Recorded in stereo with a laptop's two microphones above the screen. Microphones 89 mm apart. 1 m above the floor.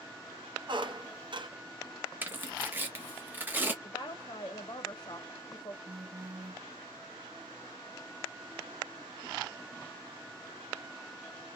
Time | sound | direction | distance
0.7 | a squeak | 60° right (ahead or behind) | 0.6 m
2.2 | tearing paper | 20° right (ahead or behind) | 0.7 m
3.8 | a woman speaking | 45° left (ahead or behind) | 0.6 m
5.8 | a phone buzzing | 10° right (ahead or behind) | 1.3 m